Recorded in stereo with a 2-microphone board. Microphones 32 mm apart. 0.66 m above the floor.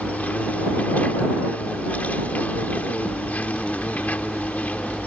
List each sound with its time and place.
0.0 s an insect: 60° left (ahead or behind)